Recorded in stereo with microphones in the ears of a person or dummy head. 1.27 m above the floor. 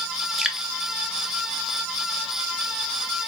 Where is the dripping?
5° left (ahead or behind), 0.5 m.